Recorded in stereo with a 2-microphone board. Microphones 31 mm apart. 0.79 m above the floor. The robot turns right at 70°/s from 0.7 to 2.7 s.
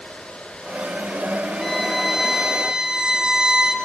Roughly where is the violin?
Centre.